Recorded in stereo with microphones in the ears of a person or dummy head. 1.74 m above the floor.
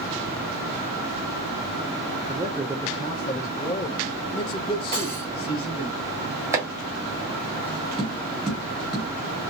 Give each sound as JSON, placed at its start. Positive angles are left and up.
{"t": 2.3, "sound": "a man speaking", "side_deg": -15, "distance_m": 0.6}
{"t": 4.9, "sound": "cutlery clinking", "side_deg": -25, "distance_m": 1.1}
{"t": 6.5, "sound": "chopping", "side_deg": -15, "distance_m": 1.6}
{"t": 8.0, "sound": "tapping", "side_deg": 5, "distance_m": 1.1}